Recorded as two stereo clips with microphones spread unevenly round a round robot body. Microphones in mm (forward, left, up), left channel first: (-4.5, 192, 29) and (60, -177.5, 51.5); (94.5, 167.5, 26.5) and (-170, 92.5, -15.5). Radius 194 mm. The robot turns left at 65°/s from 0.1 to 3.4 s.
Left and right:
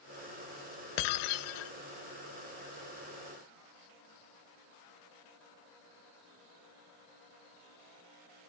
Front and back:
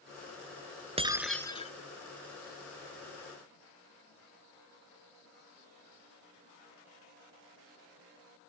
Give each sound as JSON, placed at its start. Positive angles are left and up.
{"t": 1.0, "sound": "breaking glass", "azimuth_deg": 125}